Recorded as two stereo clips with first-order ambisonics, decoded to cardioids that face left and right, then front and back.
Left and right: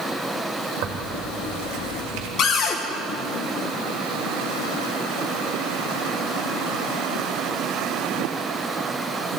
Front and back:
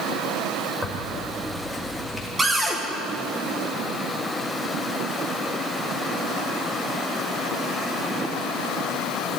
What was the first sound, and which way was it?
Tearing paper, 95° right.